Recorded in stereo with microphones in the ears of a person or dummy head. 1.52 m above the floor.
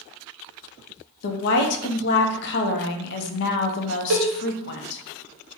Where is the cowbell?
65° right (ahead or behind), 0.9 m.